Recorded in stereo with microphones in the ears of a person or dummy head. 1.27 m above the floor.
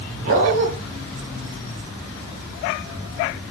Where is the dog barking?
45° right (ahead or behind), 5.5 m.